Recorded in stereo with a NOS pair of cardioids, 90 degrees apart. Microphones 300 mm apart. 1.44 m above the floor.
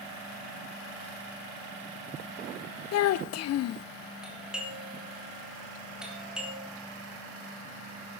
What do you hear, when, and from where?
2.9 s a child speaking: 60° left, 0.6 m
4.2 s a doorbell: straight ahead, 4 m